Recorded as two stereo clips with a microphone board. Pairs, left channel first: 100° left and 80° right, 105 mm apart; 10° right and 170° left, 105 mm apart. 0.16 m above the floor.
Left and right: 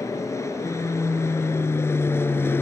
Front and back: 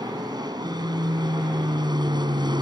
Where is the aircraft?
145° left; by 2.6 s 160° left.